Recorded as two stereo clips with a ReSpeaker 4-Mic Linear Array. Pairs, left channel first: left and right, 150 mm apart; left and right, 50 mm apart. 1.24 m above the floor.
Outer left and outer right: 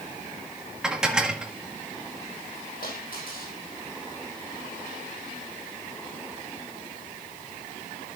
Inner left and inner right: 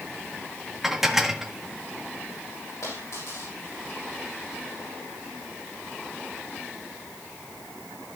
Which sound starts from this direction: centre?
Dishes clattering, at 0.8 s.